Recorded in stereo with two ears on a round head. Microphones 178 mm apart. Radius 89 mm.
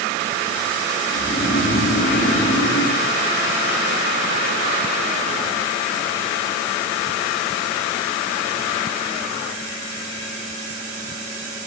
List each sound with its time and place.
1.1 s snoring: 40° left (ahead or behind), 1.0 m